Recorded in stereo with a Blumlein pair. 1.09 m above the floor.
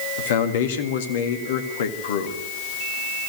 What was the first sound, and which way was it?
A man speaking, 55° left.